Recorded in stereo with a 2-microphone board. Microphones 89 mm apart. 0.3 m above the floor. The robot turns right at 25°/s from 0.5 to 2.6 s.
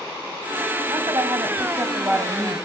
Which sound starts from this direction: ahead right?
A woman speaking, at 0.9 s.